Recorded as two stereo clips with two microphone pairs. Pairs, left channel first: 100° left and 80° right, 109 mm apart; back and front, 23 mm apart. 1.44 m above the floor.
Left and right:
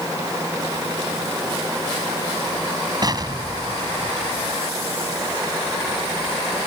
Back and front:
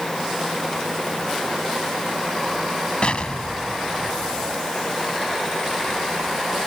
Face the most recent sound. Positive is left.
turn(degrees=-135)